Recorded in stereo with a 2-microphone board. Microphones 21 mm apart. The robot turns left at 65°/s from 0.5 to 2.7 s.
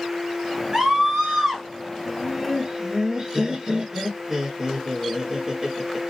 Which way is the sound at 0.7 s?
70° right.